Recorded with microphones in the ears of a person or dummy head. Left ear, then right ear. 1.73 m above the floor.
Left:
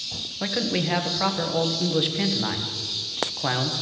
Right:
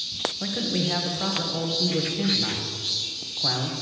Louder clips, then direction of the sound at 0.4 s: Left 1 dB; 30° left (ahead or behind).